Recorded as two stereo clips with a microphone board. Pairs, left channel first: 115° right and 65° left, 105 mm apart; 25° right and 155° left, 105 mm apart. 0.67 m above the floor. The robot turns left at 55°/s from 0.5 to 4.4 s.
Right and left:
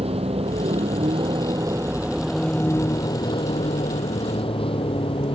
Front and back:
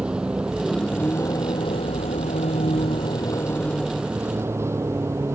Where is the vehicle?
75° left; by 5.3 s 140° right.